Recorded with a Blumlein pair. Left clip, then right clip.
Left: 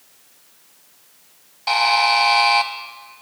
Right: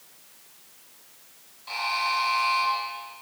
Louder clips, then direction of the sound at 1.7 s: Left 11 dB; 45° left.